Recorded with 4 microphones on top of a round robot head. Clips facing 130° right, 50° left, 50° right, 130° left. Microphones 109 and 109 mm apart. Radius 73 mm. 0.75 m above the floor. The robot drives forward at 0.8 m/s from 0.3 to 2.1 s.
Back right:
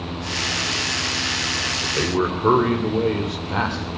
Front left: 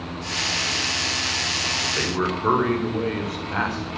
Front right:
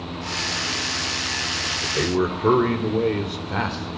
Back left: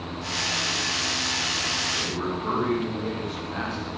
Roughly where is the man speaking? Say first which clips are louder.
Back right 4 dB, front right 10 dB; ahead right.